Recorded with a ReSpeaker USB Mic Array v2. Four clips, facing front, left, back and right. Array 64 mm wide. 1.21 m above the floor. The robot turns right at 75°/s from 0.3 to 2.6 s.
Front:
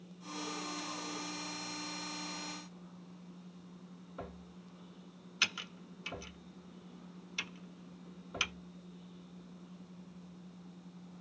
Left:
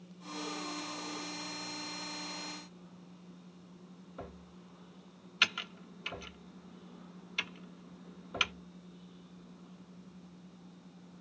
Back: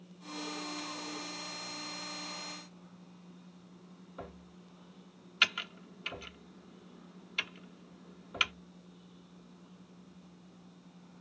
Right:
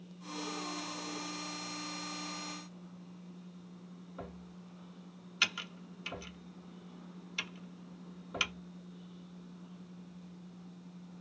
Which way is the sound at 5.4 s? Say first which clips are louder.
Left 3 dB, back 6 dB; 160° left.